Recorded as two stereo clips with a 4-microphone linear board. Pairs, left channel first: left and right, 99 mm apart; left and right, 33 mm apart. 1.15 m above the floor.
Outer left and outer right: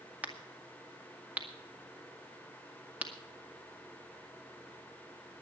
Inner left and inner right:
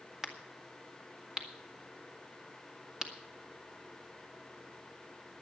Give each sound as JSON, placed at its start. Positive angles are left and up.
{"t": 0.2, "sound": "a crack", "side_deg": -15, "distance_m": 2.0}